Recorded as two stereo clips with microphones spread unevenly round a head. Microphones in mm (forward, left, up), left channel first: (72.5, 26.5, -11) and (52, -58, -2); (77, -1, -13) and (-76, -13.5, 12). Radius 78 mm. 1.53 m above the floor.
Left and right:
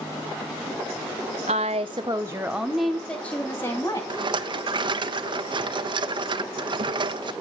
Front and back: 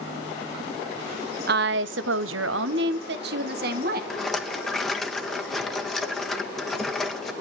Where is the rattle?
85° right, 1.2 m.